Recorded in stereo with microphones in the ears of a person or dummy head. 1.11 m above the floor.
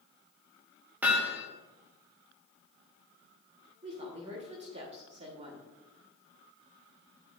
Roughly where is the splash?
I don't hear a splash.